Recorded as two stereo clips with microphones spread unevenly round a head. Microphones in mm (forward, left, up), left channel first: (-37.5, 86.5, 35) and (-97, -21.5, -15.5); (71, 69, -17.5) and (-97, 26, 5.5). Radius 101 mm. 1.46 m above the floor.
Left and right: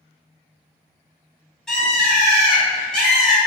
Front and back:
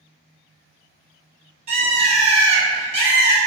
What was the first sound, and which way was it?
A bird, 145° left.